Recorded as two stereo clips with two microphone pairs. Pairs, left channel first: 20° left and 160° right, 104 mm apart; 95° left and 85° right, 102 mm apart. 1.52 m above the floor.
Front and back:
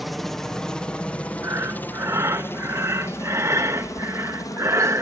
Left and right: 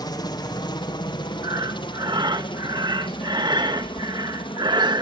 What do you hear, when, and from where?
0.0 s a helicopter: 110° left; by 5.0 s 70° left
1.4 s breathing: 110° right